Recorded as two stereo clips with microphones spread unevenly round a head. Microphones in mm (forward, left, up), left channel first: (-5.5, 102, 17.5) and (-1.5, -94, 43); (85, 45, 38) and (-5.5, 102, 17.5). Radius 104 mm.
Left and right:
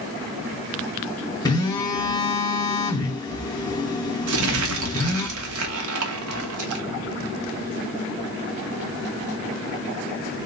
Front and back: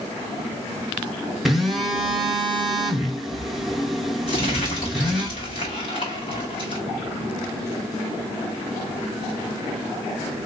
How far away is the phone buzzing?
About 0.6 m.